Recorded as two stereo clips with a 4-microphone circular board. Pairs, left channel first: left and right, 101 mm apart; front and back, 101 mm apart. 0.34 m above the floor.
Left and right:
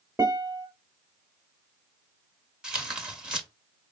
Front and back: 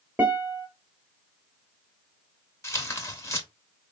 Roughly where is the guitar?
Behind right.